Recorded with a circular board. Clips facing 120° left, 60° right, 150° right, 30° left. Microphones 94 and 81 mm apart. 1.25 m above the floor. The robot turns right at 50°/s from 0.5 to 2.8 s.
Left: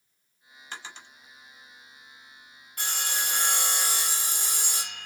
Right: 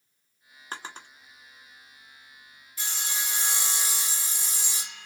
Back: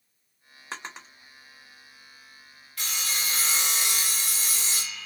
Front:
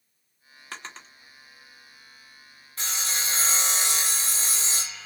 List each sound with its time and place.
0.7 s a drawer: 90° right, 0.8 m; by 1.1 s 70° right, 0.8 m
2.8 s sawing: 90° left, 0.7 m